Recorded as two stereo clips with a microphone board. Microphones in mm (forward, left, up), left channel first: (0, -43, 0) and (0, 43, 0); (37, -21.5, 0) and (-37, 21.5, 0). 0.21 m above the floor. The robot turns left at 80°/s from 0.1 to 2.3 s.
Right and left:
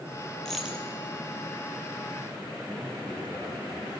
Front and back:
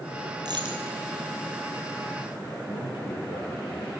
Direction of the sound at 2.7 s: 25° right.